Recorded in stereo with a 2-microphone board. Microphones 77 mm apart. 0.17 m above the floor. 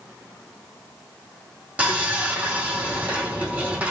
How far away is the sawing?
About 3 m.